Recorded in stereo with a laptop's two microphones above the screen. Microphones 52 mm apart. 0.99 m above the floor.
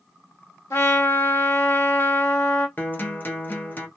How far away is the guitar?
About 0.6 m.